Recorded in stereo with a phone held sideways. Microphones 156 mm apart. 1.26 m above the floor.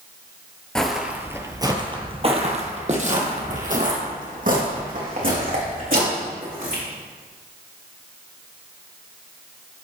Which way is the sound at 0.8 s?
5° left (ahead or behind).